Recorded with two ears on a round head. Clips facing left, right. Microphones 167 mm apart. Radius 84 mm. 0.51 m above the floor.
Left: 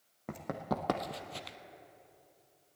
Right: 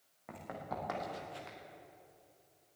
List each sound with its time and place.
0.3 s running footsteps: 55° left (ahead or behind), 1.8 m; by 1.6 s 40° left (ahead or behind), 0.9 m